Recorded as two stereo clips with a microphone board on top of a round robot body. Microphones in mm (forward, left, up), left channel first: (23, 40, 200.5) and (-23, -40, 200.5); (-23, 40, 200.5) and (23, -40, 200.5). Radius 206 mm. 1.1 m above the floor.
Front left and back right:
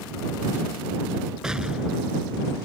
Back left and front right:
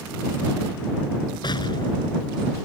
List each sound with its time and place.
1.4 s an explosion: 155° left